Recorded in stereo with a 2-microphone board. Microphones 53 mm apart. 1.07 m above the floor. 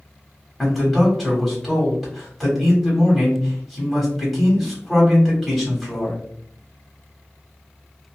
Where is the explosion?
I don't hear an explosion.